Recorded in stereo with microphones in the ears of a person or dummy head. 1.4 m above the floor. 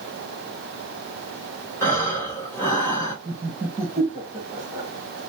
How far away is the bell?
No bell in this recording.